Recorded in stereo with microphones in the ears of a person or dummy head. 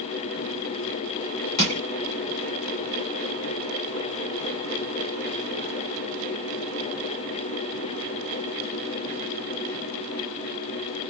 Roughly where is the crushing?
Left.